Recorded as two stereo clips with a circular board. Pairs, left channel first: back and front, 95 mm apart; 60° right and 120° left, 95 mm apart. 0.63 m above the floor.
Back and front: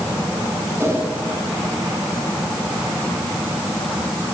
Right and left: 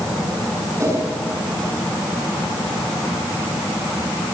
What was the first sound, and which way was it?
A whoosh, 60° left.